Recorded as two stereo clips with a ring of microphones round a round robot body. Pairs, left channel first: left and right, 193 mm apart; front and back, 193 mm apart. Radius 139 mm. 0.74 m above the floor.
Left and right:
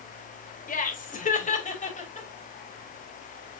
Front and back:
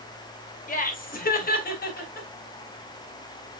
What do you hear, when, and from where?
0.7 s laughter: 45° left, 3 m; by 2.3 s 35° left, 3.5 m